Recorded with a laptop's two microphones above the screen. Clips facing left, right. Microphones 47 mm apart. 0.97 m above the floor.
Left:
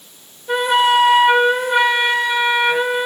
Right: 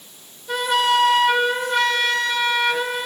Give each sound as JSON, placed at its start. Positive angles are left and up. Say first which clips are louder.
{"t": 0.5, "sound": "a flute", "louder": "left 4 dB", "side_deg": 20, "distance_m": 0.5}